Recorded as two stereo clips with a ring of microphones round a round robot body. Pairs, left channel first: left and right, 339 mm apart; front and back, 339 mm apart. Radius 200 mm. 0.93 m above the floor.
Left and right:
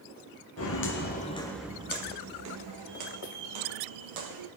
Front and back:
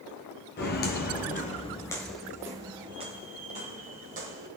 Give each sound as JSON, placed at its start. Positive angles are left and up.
{"t": 0.6, "sound": "footsteps", "azimuth_deg": 55, "distance_m": 1.3}